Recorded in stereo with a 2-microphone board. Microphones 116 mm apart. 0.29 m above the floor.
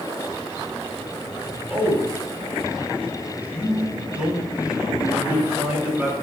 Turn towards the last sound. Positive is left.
turn(degrees=-15)  # may be behind; listen again after turning